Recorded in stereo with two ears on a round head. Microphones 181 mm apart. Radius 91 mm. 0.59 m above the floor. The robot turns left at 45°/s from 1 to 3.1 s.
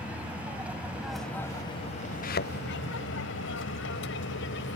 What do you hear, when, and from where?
0.0 s an aircraft: 5° right (ahead or behind); by 4.8 s 65° left (ahead or behind)
2.2 s a thud: 45° left (ahead or behind); by 2.5 s 55° left (ahead or behind)